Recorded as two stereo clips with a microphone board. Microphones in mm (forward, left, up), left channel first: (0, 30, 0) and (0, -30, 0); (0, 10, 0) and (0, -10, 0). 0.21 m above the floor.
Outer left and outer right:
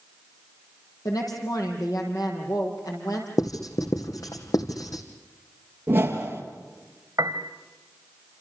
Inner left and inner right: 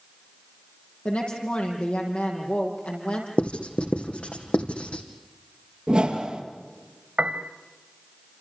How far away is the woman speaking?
About 7 m.